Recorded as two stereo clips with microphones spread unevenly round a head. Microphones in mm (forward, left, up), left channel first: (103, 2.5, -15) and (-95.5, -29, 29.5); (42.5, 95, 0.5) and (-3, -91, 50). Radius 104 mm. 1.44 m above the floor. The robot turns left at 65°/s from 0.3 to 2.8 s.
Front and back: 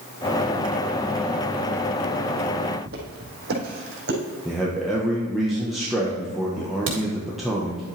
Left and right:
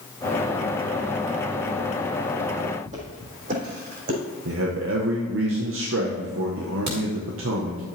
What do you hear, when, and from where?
2.9 s footsteps: 150° right, 3 m; by 4.2 s 145° right, 4 m
4.5 s a man speaking: 80° right, 1.4 m
6.9 s a crack: 145° right, 3.5 m